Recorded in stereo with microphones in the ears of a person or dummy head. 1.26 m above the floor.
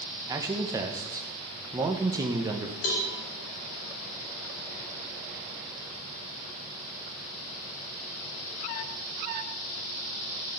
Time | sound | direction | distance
0.3 | a man speaking | 15° right (ahead or behind) | 1.0 m
2.8 | a cowbell | 80° left | 3.5 m